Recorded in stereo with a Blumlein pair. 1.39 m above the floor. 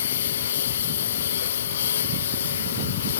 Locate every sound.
0.0 s a lawn mower: 65° left